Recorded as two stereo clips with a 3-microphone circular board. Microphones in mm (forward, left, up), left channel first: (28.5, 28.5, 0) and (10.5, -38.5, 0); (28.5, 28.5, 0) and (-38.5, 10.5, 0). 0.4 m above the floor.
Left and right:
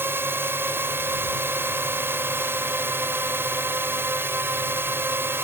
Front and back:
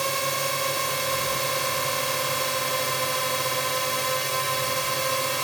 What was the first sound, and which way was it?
A drone, 75° right.